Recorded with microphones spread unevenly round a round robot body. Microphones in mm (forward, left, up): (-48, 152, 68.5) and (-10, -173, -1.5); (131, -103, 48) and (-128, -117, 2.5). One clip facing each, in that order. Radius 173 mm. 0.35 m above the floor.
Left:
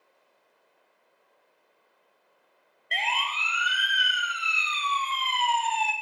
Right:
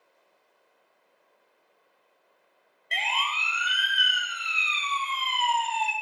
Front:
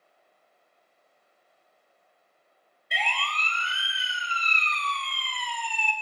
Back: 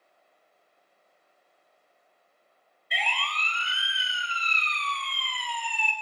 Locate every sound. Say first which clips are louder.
2.9 s a siren: left 1 dB, front 1 dB; 25° right, 2.5 m; by 5.9 s 45° left, 2.5 m